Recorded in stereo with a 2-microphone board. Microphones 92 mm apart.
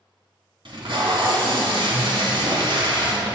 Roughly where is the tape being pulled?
Right.